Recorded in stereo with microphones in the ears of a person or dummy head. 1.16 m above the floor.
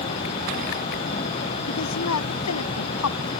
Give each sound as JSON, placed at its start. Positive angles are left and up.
{"t": 1.7, "sound": "a woman speaking", "side_deg": 80}